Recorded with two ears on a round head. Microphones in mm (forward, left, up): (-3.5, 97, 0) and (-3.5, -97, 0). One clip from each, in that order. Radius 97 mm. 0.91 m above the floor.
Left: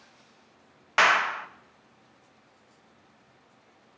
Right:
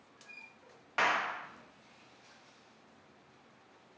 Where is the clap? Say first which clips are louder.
Left 9 dB; 45° left (ahead or behind), 0.8 m.